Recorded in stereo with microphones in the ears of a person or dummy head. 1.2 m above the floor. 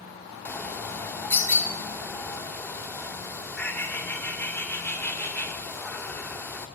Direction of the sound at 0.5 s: 15° left (ahead or behind).